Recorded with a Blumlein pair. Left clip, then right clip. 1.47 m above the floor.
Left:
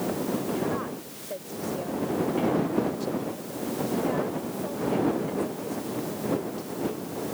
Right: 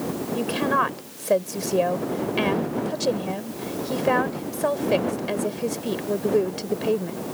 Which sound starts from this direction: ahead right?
A woman speaking, at 0.3 s.